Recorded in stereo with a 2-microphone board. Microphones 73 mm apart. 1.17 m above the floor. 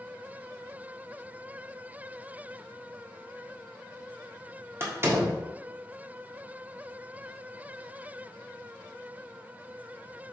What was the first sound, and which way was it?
A door slam, 35° right (ahead or behind).